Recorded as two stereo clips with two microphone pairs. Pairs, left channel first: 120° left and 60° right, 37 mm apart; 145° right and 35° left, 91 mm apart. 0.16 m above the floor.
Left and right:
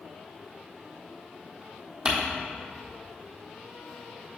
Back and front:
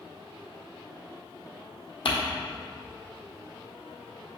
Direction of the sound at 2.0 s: 130° right.